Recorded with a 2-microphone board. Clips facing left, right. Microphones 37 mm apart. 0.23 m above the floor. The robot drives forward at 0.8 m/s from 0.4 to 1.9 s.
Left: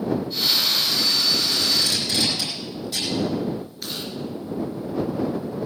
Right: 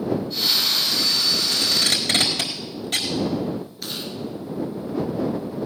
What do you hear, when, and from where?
1.5 s tape being pulled: 60° right (ahead or behind), 4 m
3.8 s chewing: centre (ahead or behind), 4 m